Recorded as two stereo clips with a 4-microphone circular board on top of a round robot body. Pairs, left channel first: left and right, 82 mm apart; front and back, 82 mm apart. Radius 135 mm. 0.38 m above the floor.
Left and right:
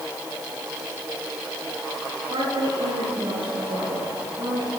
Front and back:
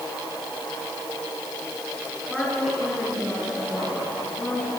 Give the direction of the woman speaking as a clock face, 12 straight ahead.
3 o'clock.